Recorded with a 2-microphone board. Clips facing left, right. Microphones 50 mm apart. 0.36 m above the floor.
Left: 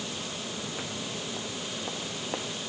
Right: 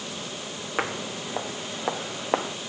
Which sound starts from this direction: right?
Footsteps, at 0.8 s.